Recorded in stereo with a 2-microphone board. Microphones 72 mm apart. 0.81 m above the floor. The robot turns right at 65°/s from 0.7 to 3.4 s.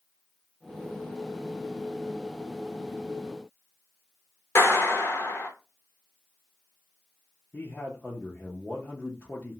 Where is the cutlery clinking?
I don't hear cutlery clinking.